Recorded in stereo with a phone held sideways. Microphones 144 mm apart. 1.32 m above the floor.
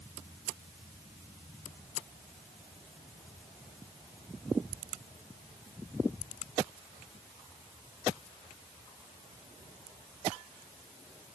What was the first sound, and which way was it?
Only background noise.